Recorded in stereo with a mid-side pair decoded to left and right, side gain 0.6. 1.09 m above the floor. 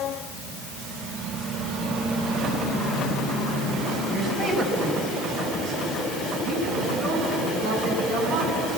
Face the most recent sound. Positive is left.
turn(degrees=-70)